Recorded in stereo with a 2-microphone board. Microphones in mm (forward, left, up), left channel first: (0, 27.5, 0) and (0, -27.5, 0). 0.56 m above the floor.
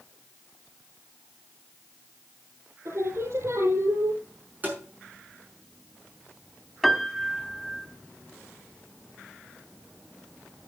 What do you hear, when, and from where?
2.9 s singing: 60° right (ahead or behind), 5.5 m
4.6 s tapping: 30° right (ahead or behind), 5.5 m
6.8 s a piano: 5° right (ahead or behind), 1.1 m